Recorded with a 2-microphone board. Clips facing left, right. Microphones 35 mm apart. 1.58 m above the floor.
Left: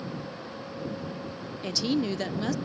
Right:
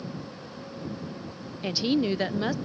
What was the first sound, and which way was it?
A woman speaking, 20° right (ahead or behind).